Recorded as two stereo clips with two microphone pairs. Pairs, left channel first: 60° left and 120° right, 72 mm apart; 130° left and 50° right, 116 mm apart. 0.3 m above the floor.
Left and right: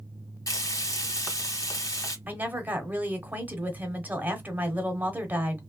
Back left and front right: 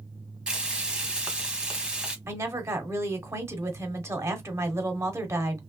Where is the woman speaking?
90° right, 0.9 m.